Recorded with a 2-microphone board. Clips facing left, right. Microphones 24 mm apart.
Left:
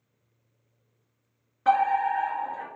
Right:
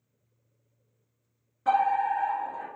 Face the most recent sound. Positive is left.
turn(degrees=35)  # may be behind; listen again after turning